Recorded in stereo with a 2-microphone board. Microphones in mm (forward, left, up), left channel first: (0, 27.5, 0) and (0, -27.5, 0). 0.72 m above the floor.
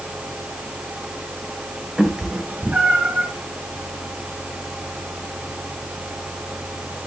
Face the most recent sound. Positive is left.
turn(degrees=-35)  # may be behind; listen again after turning